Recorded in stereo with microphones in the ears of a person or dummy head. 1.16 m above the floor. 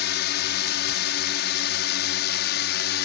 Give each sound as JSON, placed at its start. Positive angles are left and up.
{"t": 0.0, "sound": "a drone", "side_deg": 55}